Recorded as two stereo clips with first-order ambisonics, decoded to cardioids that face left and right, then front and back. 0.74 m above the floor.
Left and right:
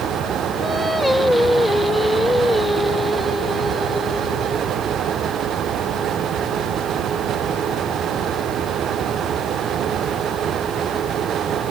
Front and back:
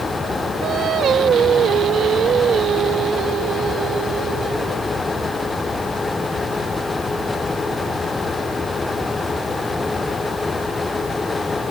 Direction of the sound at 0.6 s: 170° left.